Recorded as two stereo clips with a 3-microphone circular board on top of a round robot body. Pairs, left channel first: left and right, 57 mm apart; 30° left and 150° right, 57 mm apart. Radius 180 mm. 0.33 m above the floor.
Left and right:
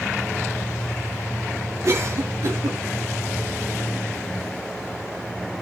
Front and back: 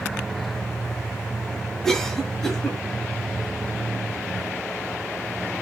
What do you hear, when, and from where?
1.8 s a cough: 55° right, 8 m